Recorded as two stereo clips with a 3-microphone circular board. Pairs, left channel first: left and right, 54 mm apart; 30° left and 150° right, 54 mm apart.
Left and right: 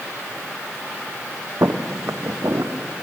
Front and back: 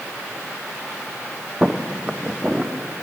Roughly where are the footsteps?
Right.